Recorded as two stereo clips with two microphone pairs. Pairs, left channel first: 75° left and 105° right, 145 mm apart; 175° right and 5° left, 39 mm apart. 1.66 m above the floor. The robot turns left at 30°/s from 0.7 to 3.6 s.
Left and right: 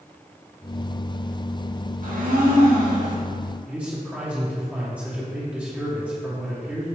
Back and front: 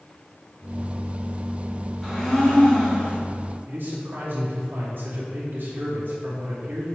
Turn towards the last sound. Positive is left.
turn(degrees=-25)